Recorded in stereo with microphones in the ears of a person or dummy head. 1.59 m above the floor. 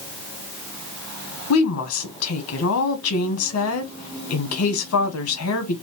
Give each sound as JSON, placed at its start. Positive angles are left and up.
{"t": 1.5, "sound": "a woman speaking", "side_deg": 85, "distance_m": 1.2}